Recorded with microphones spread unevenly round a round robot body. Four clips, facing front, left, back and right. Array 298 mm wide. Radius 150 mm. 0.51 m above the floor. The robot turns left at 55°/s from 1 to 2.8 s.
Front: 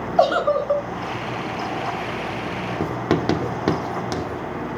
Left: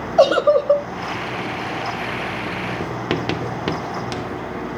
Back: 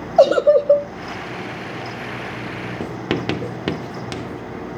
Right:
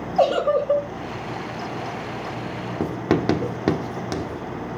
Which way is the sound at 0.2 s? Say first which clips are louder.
Left 5 dB, back 6 dB; 165° left.